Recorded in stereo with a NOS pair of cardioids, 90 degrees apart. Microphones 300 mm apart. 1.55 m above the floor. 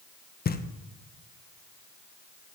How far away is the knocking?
About 1.1 m.